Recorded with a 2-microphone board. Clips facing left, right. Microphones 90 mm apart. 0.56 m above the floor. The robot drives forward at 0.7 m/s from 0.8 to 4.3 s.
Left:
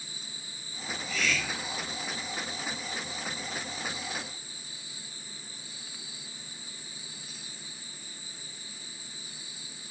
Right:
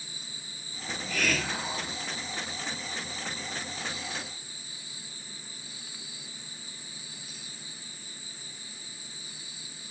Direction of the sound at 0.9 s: 65° right (ahead or behind).